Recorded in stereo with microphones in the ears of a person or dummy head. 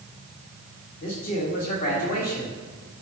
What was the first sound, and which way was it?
A man speaking, 40° left (ahead or behind).